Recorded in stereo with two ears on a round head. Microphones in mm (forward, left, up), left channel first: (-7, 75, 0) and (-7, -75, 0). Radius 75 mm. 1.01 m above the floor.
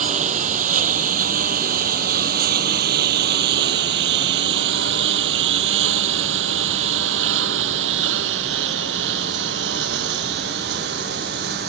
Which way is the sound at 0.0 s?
45° right (ahead or behind).